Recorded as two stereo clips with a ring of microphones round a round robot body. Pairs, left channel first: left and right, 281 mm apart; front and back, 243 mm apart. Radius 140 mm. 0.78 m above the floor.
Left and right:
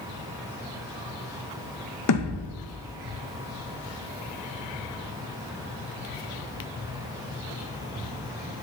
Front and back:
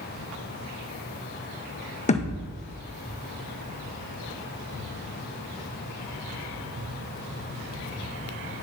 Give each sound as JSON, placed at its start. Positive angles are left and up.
{"t": 2.1, "sound": "a thud", "azimuth_deg": 60, "distance_m": 1.7}